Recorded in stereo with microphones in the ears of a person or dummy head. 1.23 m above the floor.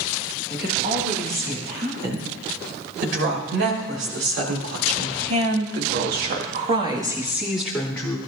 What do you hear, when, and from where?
0.5 s a woman speaking: 60° right (ahead or behind), 8.5 m; by 8.2 s 15° left (ahead or behind), 3 m